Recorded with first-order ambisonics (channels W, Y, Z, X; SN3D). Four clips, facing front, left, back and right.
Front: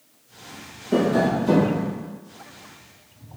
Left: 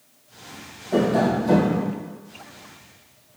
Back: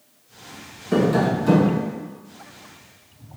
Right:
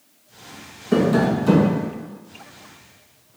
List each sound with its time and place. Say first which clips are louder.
0.9 s tapping: right 2 dB, back 1 dB; 125° right, 1.0 m